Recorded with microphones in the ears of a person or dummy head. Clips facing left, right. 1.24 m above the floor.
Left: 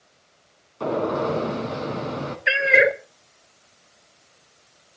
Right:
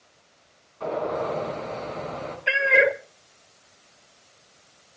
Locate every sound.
0.8 s a gunshot: 55° left (ahead or behind), 4 m
2.5 s a cat meowing: 25° left (ahead or behind), 1.2 m